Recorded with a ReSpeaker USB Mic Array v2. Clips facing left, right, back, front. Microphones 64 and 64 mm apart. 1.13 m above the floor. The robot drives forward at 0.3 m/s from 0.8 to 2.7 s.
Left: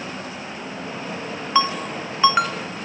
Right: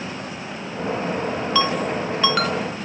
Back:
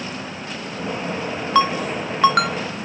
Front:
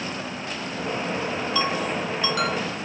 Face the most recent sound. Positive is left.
turn(degrees=160)